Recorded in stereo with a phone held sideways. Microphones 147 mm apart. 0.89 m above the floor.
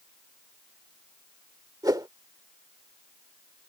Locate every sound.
1.8 s a whoosh: 25° right (ahead or behind)